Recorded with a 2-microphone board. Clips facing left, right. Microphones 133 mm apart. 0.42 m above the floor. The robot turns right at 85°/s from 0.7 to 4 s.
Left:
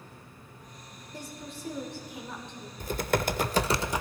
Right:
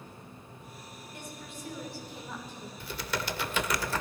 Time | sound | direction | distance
1.1 | a woman speaking | 75° left | 1.6 m
2.8 | typing on a keyboard | 60° left | 0.5 m